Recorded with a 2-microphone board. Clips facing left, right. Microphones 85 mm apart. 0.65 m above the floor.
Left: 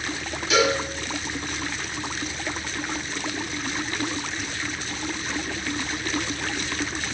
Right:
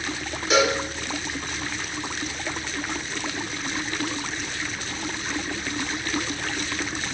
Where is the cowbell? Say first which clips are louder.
Even; 40° right (ahead or behind), 1.1 m.